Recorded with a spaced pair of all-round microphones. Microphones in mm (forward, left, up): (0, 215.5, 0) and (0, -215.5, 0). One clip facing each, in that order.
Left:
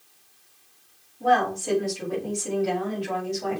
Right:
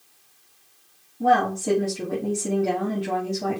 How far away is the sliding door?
No sliding door in this recording.